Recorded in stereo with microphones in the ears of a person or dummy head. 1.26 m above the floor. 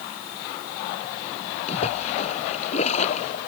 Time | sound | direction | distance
1.7 | a splash | 45° left (ahead or behind) | ?